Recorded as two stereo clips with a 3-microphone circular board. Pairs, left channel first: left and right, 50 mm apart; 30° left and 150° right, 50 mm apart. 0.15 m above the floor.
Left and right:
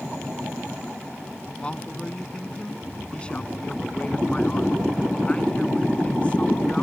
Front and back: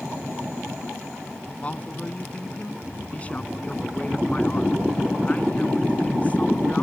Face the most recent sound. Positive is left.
turn(degrees=50)